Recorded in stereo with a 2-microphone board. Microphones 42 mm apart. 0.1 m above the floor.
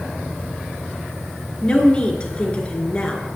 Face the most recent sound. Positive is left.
turn(degrees=25)  # may be behind; listen again after turning